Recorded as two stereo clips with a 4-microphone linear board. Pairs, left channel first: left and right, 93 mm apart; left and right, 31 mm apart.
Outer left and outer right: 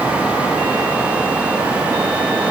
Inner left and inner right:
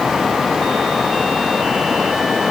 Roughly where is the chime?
I don't hear a chime.